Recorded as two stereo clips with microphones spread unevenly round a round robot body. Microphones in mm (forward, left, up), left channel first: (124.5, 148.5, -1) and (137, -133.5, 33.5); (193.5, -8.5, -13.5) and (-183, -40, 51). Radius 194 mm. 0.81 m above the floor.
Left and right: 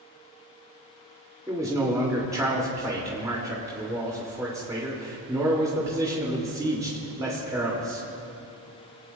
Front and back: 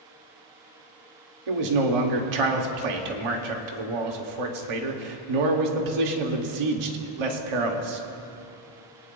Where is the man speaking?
170° right, 1.9 m.